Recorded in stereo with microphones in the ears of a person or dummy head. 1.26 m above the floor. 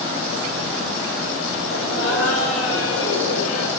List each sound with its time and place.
1.7 s laughter: 85° left, 8 m